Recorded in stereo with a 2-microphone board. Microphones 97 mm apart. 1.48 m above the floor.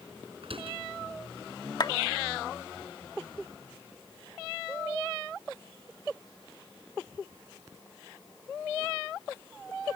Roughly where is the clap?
Left.